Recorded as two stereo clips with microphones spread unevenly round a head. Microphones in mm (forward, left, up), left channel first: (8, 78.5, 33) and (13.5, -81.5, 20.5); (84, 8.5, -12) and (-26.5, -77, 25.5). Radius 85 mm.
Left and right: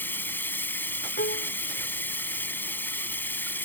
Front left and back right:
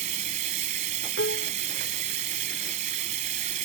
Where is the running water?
170° left.